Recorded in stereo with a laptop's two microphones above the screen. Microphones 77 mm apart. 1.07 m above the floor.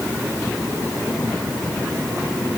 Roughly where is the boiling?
I don't hear boiling.